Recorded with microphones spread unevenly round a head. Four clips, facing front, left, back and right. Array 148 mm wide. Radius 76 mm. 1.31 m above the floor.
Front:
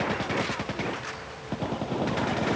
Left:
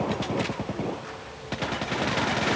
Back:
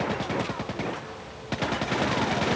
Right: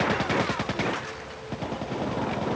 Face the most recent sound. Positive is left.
No sound to turn to.